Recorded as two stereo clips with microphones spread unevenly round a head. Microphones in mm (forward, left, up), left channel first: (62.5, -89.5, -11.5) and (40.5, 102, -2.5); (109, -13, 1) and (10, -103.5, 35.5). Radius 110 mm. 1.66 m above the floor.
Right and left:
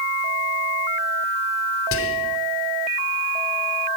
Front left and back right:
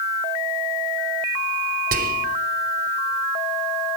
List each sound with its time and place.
1.9 s whispering: 120° right, 0.7 m